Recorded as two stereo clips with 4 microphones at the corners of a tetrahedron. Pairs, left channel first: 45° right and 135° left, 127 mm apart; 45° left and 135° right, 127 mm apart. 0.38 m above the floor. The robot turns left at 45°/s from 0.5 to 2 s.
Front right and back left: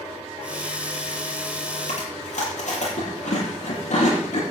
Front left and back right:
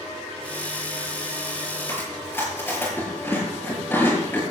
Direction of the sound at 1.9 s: 25° right.